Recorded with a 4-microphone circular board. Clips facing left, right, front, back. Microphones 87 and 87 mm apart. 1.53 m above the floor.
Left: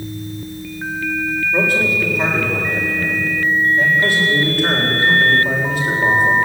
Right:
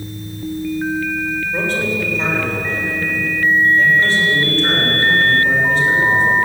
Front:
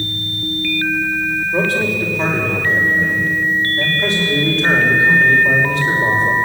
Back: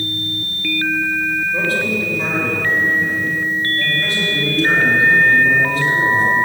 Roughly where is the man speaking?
Ahead.